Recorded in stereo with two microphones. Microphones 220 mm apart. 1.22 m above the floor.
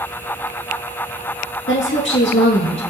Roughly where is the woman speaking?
Left.